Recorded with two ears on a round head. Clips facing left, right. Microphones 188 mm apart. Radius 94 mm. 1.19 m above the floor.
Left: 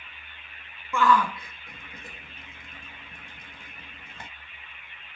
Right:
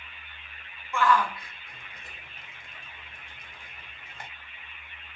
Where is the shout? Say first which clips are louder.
Left 2 dB; 75° left (ahead or behind), 1.1 m.